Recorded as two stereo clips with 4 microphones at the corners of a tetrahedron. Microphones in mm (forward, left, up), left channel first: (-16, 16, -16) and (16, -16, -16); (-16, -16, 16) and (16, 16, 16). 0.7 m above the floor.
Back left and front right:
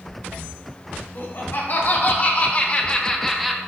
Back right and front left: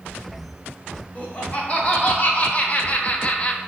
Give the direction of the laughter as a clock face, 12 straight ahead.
7 o'clock.